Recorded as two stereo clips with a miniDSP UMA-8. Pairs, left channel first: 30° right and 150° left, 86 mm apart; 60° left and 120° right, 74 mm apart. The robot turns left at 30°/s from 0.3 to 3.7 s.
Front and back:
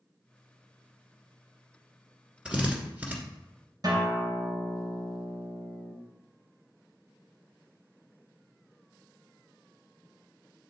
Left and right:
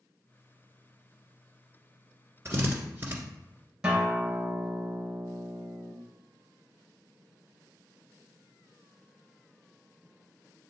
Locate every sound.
2.5 s a drill: 140° right, 1.5 m; by 3.2 s 160° right, 1.5 m
3.8 s a guitar: 160° left, 2.5 m